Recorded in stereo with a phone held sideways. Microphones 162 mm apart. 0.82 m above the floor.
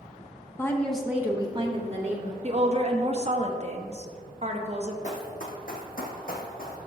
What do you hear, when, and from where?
0.6 s a woman speaking: 20° left (ahead or behind), 0.9 m; by 2.3 s 50° right (ahead or behind), 1.3 m
2.4 s a woman speaking: 40° right (ahead or behind), 1.0 m
5.0 s running footsteps: 50° left (ahead or behind), 1.7 m; by 6.8 s 65° left (ahead or behind), 1.9 m